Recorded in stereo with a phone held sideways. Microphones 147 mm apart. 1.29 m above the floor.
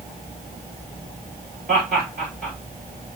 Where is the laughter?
75° right (ahead or behind), 3.5 m.